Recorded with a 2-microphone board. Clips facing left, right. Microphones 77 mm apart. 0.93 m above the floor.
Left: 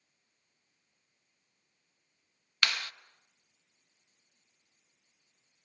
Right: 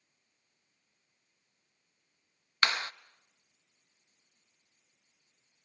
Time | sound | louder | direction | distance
2.6 | a clap | right 3 dB | 30° right (ahead or behind) | 0.5 m